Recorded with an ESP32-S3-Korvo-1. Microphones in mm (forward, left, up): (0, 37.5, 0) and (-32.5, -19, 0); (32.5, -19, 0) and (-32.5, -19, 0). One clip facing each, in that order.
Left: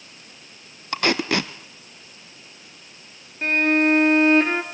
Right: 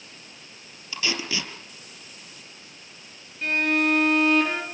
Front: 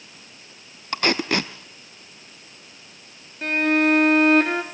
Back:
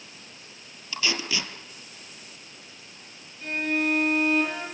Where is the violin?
10° left, 2.5 m.